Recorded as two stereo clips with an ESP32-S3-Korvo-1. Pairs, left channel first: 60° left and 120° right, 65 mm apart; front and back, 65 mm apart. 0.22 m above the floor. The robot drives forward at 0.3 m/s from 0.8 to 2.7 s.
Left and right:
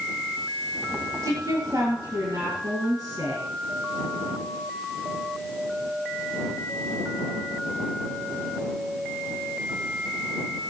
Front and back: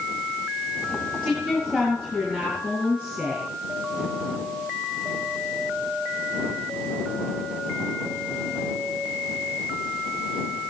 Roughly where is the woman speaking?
Right.